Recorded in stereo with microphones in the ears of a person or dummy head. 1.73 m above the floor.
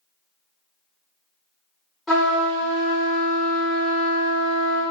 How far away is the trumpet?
About 0.6 m.